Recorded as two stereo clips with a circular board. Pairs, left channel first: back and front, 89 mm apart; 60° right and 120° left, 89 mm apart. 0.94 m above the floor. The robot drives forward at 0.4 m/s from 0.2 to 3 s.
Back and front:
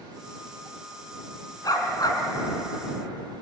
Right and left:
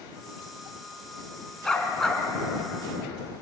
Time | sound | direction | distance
1.6 | a dog barking | 140° right | 3 m